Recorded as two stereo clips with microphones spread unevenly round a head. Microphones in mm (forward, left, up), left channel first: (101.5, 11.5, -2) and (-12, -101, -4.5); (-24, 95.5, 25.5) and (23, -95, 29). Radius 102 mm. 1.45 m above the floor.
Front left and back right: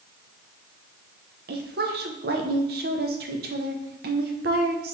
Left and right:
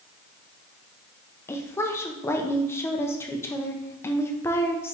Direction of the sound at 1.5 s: 175° right.